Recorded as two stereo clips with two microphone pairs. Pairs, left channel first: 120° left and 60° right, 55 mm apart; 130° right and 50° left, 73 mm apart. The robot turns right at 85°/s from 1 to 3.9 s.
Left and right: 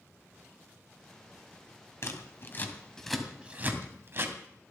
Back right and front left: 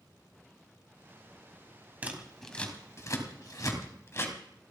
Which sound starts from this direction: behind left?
Scissors, at 2.0 s.